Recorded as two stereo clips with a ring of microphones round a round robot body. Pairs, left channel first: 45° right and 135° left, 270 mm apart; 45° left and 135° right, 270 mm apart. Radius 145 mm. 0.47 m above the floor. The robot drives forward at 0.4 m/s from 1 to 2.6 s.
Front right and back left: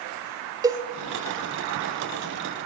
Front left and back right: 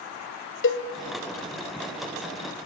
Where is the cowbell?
65° left, 1.2 m.